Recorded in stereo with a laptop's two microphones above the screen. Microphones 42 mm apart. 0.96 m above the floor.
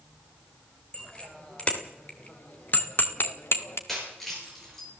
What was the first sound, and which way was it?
A bicycle bell, 20° left (ahead or behind).